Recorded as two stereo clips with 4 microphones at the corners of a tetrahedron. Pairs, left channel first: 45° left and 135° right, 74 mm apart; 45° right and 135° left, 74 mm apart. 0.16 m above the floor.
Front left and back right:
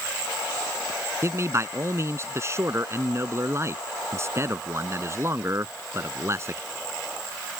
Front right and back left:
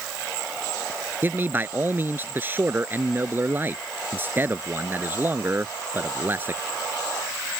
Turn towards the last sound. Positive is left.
turn(degrees=-170)